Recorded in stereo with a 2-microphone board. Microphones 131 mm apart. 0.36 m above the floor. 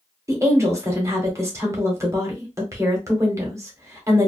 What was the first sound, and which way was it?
A woman speaking, 20° right (ahead or behind).